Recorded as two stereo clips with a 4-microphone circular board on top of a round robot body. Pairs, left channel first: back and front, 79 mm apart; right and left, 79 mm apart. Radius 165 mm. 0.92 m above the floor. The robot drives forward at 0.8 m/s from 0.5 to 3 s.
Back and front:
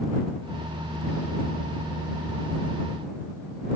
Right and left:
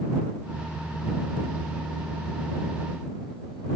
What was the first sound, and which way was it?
Only background noise.